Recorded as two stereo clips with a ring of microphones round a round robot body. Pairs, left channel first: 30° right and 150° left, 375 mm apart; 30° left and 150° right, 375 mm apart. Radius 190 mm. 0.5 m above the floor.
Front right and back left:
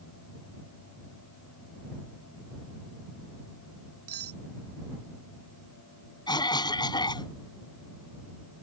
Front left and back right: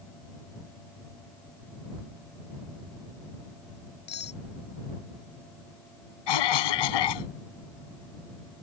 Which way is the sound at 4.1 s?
95° left.